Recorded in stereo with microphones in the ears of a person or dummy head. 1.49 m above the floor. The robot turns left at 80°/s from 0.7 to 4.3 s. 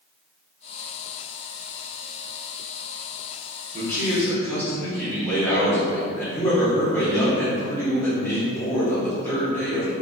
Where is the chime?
No chime in this recording.